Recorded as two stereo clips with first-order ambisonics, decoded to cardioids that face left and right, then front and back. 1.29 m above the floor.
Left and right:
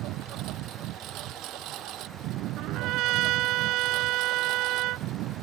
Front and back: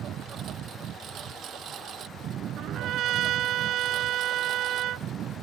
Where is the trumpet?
130° right.